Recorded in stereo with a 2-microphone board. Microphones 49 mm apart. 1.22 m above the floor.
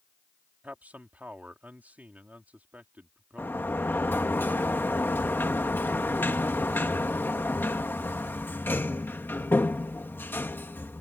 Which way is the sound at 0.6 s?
35° right (ahead or behind).